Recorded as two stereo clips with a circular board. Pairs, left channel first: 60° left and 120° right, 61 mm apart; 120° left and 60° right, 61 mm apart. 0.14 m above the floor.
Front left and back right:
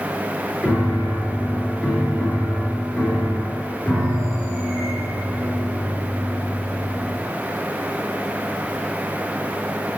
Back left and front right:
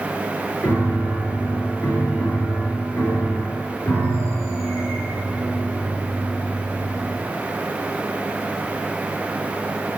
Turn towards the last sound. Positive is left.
turn(degrees=125)